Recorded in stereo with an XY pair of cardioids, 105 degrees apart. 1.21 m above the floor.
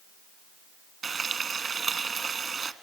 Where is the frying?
40° right, 1.2 m.